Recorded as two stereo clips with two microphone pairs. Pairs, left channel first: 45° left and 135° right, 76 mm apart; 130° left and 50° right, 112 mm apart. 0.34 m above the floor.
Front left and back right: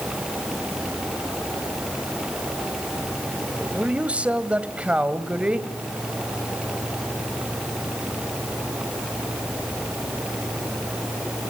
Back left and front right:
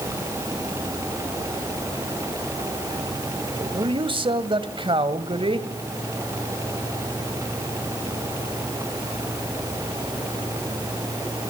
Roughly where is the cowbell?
No cowbell in this recording.